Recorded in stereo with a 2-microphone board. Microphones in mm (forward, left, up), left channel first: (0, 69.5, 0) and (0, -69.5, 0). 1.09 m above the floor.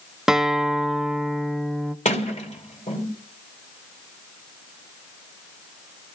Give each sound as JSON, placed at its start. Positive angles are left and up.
{"t": 0.3, "sound": "a guitar", "side_deg": -5, "distance_m": 0.6}
{"t": 2.0, "sound": "a sliding door", "side_deg": 55, "distance_m": 2.5}